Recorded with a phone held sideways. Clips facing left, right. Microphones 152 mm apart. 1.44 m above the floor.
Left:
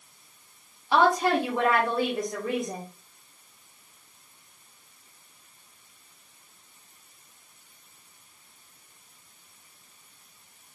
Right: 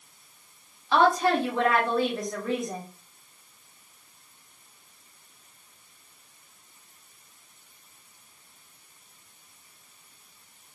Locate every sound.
0.9 s a woman speaking: 15° left (ahead or behind), 0.9 m